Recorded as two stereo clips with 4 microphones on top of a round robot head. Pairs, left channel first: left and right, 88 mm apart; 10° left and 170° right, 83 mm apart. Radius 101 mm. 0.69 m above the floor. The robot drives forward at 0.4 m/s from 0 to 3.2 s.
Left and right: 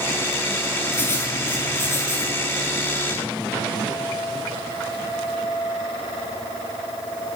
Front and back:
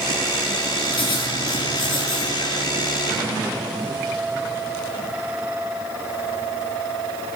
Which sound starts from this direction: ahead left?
Writing, at 0.9 s.